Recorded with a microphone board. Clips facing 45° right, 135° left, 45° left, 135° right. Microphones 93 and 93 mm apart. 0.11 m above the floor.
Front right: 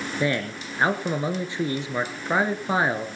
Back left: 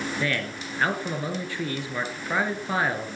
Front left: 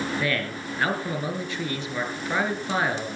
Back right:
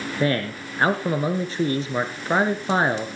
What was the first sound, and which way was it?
A man speaking, 100° right.